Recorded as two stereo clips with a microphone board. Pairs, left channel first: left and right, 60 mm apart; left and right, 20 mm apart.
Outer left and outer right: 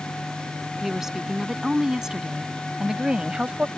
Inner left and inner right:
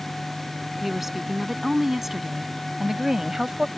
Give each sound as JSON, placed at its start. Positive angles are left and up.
{"t": 0.8, "sound": "a woman speaking", "side_deg": -5}